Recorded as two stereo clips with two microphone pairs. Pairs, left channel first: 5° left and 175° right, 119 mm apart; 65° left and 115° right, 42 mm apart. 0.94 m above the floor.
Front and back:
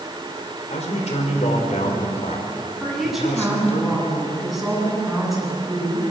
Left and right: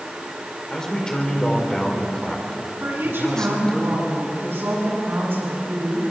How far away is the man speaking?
About 4 m.